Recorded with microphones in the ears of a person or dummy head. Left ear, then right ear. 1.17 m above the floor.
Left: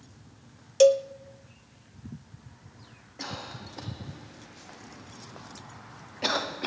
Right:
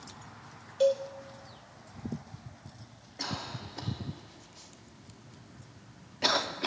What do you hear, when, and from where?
0.8 s a cowbell: 60° left (ahead or behind), 0.5 m
3.2 s a cough: 10° right (ahead or behind), 0.8 m